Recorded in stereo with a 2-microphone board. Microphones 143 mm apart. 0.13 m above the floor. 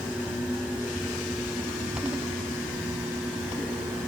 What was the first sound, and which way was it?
Only background noise.